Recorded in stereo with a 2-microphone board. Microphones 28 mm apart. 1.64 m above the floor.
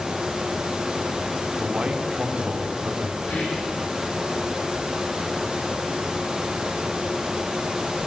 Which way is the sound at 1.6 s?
45° right (ahead or behind).